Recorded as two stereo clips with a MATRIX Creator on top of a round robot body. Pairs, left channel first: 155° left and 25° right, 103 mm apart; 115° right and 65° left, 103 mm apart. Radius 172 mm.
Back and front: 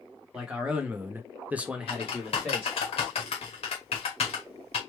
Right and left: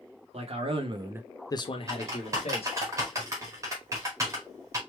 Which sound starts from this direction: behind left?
Typing on a keyboard, at 1.9 s.